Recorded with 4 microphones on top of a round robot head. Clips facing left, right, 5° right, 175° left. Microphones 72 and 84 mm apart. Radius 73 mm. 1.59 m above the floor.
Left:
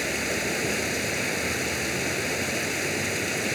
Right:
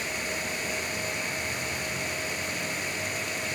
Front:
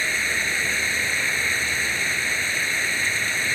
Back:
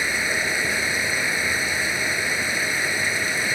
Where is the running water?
100° left.